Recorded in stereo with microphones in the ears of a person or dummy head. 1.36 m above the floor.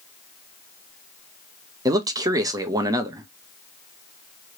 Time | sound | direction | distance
1.9 | a man speaking | 15° right (ahead or behind) | 0.5 m